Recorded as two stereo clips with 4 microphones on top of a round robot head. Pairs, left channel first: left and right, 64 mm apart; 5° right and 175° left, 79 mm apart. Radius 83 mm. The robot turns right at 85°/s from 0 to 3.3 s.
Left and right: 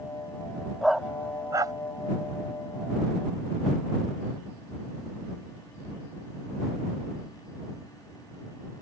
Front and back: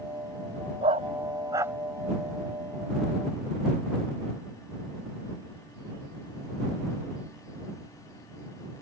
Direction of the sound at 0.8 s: 175° left.